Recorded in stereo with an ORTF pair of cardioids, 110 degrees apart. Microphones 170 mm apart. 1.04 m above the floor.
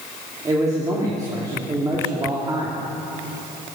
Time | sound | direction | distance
0.5 | a man speaking | 20° right | 3 m